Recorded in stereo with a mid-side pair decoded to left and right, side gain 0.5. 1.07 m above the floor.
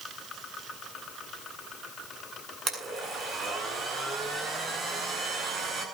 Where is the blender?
45° right, 7.5 m.